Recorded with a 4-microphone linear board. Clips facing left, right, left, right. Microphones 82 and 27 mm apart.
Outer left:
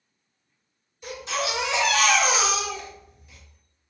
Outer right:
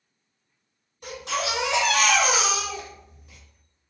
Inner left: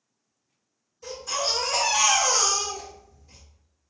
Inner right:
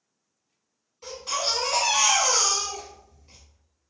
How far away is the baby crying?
About 1.5 m.